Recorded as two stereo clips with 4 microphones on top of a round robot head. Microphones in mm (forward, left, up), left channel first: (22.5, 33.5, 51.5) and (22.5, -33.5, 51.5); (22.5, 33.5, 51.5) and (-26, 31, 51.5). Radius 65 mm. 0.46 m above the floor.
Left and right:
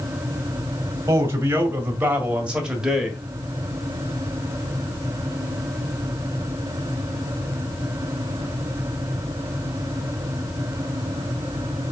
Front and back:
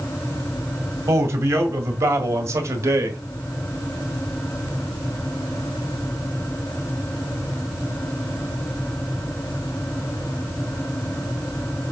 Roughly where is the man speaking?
Behind right.